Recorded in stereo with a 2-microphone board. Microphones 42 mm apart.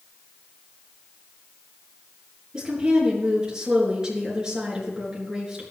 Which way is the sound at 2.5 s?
20° right (ahead or behind).